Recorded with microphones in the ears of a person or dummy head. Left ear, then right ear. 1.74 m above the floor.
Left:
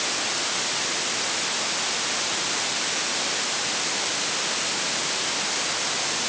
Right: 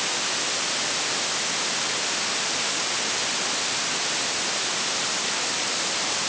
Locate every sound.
Only background noise.